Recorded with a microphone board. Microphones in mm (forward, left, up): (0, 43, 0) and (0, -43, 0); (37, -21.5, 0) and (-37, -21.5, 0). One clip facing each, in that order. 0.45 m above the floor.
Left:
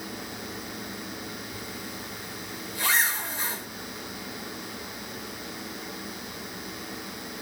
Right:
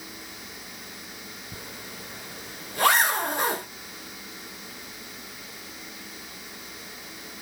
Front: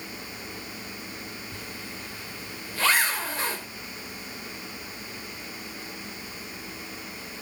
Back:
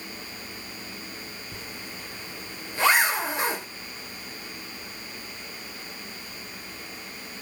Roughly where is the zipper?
Right.